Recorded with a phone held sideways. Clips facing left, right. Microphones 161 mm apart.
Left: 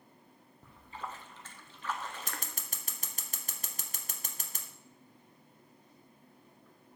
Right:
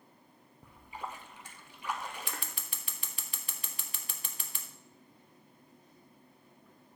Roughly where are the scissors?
Left.